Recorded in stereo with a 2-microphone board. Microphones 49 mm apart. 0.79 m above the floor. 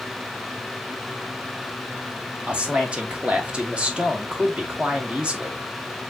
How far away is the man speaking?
About 1.2 m.